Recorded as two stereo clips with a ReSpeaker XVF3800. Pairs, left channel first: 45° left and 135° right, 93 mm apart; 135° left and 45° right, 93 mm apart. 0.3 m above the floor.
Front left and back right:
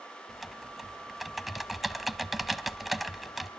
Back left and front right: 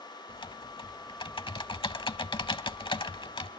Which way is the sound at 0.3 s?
135° left.